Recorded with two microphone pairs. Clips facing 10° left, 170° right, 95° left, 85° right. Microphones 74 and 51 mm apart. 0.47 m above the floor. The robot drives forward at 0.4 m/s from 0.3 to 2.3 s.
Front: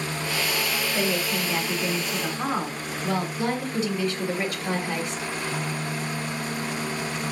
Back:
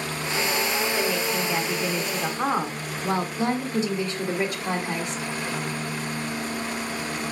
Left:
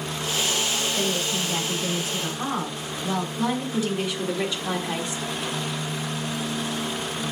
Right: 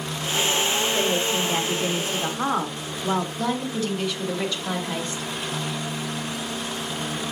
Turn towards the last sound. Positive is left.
turn(degrees=150)